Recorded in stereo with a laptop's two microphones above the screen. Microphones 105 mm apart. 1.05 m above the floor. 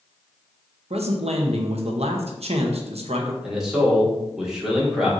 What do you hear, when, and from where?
0.9 s a man speaking: 75° right (ahead or behind), 0.7 m
3.4 s a man speaking: 5° right (ahead or behind), 0.9 m